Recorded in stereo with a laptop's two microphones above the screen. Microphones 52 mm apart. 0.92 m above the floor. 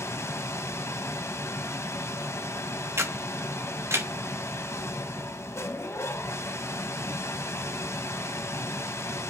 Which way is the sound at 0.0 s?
60° left (ahead or behind).